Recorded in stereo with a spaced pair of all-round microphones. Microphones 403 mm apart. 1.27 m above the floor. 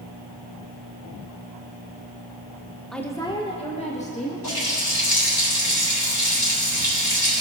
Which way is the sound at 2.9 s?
Centre (ahead or behind).